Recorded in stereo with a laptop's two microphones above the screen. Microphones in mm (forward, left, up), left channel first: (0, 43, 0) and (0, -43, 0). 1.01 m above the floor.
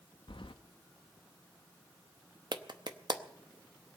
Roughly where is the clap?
Right.